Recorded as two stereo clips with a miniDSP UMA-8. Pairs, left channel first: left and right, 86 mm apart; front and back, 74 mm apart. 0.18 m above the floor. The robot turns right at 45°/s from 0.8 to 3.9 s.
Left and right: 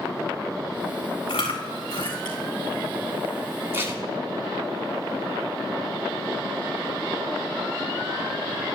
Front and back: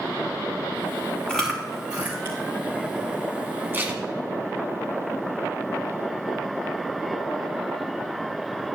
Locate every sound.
1.3 s chewing: 80° left, 2.5 m; by 2.4 s 130° left, 2.5 m
3.7 s tape being pulled: 135° right, 1.6 m; by 4.0 s 130° right, 1.6 m